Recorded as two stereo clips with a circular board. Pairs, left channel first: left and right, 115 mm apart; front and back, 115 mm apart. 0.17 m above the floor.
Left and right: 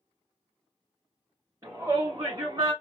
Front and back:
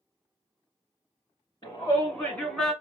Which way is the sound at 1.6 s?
40° right.